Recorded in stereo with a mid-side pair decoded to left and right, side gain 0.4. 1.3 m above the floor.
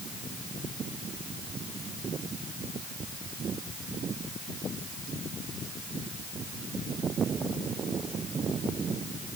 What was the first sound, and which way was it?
Only background noise.